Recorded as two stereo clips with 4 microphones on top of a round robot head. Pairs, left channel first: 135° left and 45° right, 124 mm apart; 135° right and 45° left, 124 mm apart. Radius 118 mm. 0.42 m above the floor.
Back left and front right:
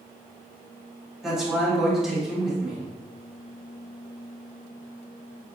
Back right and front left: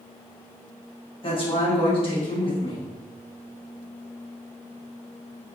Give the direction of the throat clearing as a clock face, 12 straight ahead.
No throat clearing in this recording.